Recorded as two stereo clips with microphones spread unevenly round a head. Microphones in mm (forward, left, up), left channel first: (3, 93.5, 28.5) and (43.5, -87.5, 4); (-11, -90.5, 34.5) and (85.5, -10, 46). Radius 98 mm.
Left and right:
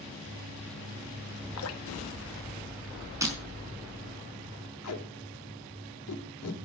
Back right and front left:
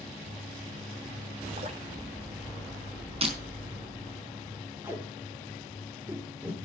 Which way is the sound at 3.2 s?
Straight ahead.